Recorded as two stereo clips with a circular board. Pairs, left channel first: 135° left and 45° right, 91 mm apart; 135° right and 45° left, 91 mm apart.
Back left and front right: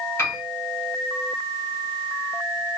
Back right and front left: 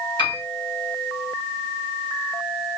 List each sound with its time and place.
0.2 s a piano: 165° right, 2 m